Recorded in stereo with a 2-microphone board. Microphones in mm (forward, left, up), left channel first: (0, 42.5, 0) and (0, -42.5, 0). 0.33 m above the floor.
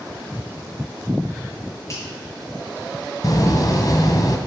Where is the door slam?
50° left (ahead or behind), 1.8 m.